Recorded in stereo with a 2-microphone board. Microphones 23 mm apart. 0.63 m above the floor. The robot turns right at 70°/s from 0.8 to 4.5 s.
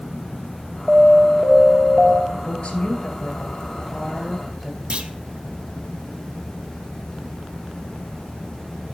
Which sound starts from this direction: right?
A clunk, at 4.9 s.